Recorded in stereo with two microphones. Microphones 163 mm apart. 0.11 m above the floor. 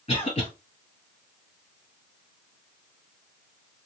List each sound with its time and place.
0.1 s a cough: 35° left (ahead or behind), 2.0 m